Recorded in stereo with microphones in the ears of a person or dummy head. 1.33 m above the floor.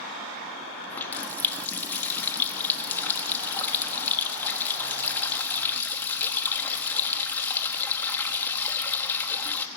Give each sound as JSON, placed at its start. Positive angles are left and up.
{"t": 0.9, "sound": "a running tap", "side_deg": 10, "distance_m": 1.2}